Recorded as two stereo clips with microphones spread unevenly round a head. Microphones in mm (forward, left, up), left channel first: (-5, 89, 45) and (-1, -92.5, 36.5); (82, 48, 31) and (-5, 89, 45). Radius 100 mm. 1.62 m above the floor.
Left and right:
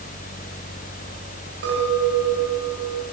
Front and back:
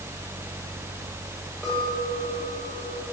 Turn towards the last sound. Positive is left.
turn(degrees=-115)